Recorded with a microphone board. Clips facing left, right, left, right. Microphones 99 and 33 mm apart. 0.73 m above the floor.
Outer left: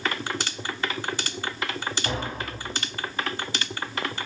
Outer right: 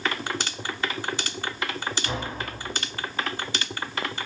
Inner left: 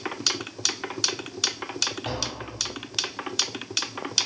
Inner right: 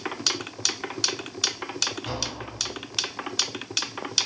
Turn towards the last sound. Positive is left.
turn(degrees=60)  # may be behind; listen again after turning